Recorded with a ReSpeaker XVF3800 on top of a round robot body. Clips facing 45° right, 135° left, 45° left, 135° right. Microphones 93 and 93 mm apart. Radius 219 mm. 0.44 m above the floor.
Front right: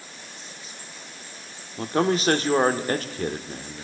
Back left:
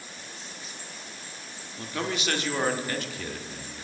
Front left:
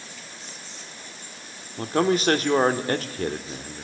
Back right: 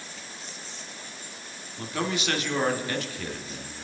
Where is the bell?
I don't hear a bell.